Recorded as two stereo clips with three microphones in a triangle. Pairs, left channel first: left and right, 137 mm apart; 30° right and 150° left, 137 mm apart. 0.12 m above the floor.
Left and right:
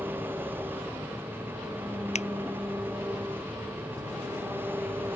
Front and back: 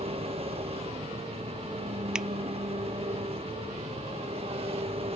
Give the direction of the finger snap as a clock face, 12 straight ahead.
10 o'clock.